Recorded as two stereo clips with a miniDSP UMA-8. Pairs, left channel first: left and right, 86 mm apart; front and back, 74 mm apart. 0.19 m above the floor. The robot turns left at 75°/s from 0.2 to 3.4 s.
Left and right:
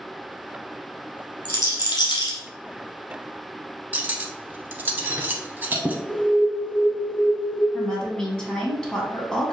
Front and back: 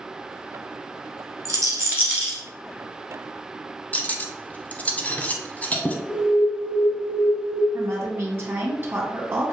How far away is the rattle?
About 1.5 m.